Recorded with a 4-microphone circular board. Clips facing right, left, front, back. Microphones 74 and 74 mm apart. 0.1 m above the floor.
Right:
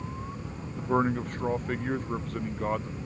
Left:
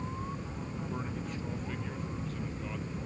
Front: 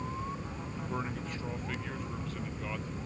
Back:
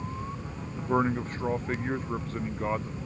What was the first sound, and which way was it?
A man speaking, 130° right.